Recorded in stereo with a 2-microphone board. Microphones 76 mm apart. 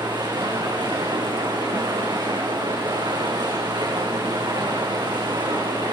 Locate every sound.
0.0 s running water: 85° right, 9 m